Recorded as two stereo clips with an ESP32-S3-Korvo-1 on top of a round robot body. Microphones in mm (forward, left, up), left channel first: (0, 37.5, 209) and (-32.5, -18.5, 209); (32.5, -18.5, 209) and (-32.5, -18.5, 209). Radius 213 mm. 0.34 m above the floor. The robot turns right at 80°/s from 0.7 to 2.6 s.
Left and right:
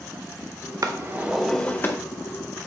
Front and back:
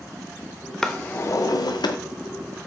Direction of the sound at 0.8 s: 85° right.